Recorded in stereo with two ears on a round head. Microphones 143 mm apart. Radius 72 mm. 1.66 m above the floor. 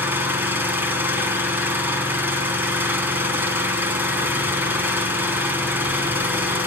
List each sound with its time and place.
0.0 s an engine running: 15° right (ahead or behind), 6 m